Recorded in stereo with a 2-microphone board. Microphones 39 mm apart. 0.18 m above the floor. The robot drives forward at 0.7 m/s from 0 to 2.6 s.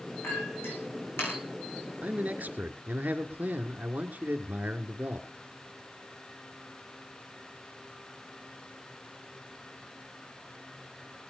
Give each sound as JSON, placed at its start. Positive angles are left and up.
{"t": 0.2, "sound": "a clink", "side_deg": 85, "distance_m": 8.5}
{"t": 2.0, "sound": "a man speaking", "side_deg": -45, "distance_m": 2.5}